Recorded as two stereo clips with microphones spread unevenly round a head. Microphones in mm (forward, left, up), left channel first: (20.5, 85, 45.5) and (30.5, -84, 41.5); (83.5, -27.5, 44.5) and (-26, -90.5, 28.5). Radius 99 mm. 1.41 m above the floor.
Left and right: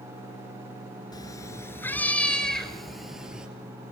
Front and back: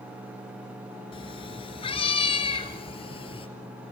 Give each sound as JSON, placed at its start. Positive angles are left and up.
{"t": 1.1, "sound": "a cat meowing", "azimuth_deg": 35, "distance_m": 1.8}